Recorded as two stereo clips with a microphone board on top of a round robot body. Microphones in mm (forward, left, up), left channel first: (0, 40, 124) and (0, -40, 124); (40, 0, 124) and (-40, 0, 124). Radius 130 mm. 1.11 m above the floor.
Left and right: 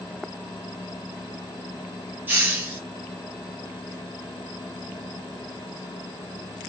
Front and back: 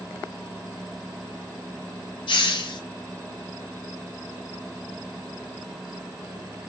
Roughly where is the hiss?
Ahead.